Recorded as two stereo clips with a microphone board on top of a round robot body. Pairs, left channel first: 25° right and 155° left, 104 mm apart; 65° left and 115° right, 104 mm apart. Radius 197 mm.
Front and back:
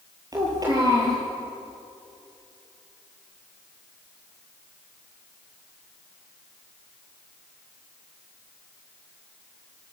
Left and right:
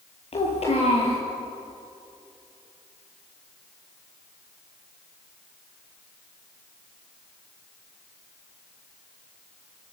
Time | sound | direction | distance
0.3 | a child speaking | 100° left | 8 m